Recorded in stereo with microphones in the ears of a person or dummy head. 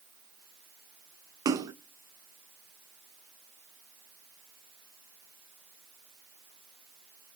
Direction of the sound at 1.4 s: 20° right (ahead or behind).